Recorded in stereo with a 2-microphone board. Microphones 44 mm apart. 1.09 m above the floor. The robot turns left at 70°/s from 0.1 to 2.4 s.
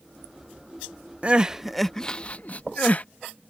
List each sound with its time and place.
1.2 s crying: 35° right (ahead or behind); by 3.0 s 35° left (ahead or behind)